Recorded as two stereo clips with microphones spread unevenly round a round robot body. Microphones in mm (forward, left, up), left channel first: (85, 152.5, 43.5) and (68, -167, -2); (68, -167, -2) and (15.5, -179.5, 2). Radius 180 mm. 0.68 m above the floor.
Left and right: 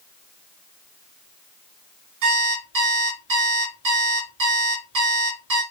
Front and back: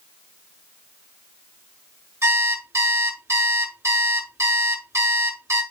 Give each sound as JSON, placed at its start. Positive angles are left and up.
{"t": 2.2, "sound": "an alarm clock", "azimuth_deg": -135, "distance_m": 5.5}